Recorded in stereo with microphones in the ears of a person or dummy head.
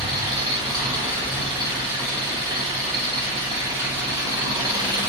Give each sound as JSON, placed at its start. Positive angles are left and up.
{"t": 0.0, "sound": "an engine running", "side_deg": -15, "distance_m": 0.7}